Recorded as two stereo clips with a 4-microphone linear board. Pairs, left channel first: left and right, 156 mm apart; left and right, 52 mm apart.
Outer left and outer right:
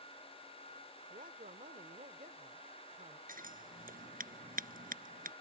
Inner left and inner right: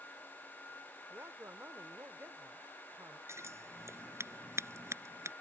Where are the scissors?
65° right (ahead or behind).